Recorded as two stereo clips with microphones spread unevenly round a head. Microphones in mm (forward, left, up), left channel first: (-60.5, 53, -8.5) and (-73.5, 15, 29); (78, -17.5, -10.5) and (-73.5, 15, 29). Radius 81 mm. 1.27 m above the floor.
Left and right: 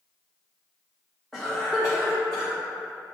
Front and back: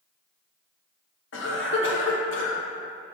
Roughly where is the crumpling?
I don't hear crumpling.